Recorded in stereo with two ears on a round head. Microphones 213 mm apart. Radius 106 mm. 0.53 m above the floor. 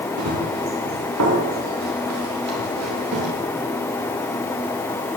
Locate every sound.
0.2 s running footsteps: 80° right, 7.5 m; by 3.3 s 70° right (ahead or behind), 10.5 m